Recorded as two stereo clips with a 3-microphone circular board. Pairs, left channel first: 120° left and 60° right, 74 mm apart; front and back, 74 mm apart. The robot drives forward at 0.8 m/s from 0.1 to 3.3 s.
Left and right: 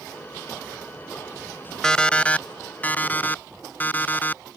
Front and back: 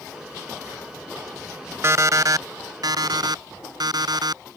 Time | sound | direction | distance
1.8 | an alarm clock | 165° right | ?